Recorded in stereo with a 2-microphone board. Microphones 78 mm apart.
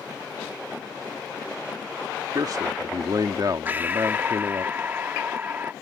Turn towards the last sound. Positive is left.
turn(degrees=-25)  # may be behind; listen again after turning